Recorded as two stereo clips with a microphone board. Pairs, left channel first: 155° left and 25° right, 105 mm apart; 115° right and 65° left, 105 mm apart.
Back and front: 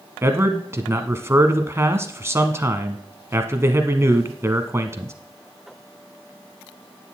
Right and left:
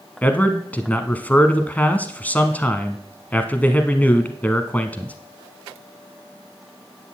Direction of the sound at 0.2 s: 55° right.